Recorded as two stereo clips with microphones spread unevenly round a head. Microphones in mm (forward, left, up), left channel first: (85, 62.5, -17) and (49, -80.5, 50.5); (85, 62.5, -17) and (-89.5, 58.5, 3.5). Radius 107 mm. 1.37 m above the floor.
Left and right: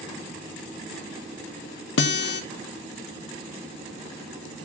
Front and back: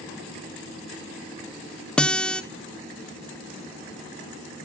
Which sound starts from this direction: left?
A guitar, at 2.0 s.